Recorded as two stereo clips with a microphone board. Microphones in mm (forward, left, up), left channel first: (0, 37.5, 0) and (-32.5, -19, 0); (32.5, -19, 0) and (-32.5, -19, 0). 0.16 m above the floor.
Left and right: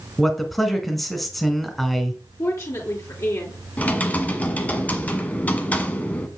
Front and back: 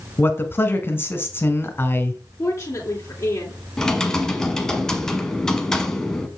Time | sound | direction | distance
0.2 | a man speaking | 30° right | 1.3 m
2.4 | a woman speaking | 40° left | 2.5 m
3.8 | typing on a keyboard | 65° left | 1.0 m